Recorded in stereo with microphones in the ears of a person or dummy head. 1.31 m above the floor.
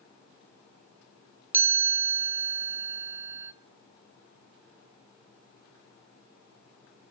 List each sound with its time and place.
1.5 s a chime: 15° right (ahead or behind), 1.2 m